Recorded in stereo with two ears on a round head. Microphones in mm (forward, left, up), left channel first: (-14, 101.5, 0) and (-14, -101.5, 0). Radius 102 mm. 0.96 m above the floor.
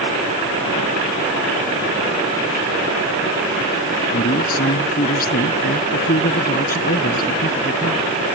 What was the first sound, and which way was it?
A man speaking, 40° left (ahead or behind).